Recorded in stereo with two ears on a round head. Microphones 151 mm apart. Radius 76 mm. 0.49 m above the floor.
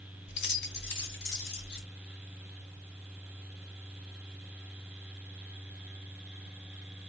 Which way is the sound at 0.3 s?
75° left (ahead or behind).